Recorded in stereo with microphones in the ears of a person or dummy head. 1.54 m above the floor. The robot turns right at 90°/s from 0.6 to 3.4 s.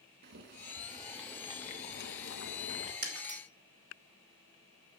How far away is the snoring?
No snoring in this recording.